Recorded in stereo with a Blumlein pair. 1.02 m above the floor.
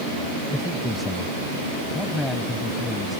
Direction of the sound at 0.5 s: Straight ahead.